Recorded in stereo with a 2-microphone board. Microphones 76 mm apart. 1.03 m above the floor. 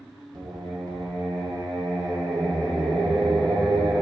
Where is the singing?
75° right (ahead or behind), 1.8 m.